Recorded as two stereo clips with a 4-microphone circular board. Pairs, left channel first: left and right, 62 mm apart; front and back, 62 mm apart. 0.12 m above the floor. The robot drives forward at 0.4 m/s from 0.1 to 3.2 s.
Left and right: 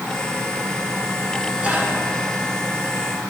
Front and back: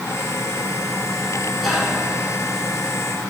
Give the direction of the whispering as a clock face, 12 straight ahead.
3 o'clock.